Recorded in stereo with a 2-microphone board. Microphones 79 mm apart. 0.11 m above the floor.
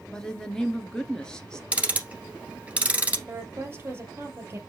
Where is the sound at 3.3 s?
30° right (ahead or behind), 3 m.